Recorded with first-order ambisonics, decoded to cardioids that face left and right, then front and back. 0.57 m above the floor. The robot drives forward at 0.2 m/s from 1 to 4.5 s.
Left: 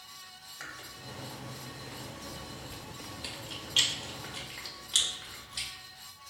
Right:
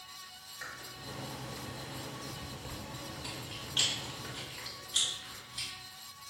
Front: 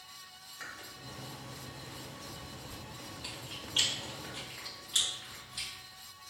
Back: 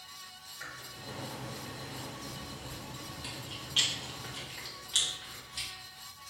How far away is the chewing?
About 1.2 m.